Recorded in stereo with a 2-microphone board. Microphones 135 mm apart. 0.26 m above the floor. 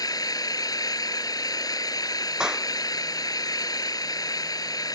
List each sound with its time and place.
0.0 s an engine running: 30° left (ahead or behind)
2.4 s a clap: 5° right (ahead or behind)